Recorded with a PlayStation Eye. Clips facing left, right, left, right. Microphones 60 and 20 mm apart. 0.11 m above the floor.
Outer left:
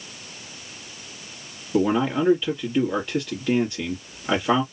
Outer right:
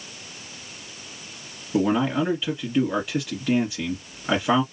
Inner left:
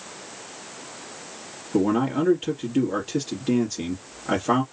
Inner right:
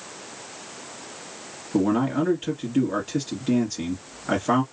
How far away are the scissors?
No scissors in this recording.